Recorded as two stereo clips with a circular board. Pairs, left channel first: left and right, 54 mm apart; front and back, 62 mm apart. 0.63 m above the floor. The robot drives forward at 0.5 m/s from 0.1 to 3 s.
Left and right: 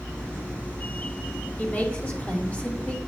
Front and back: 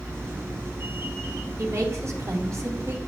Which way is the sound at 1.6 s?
145° left.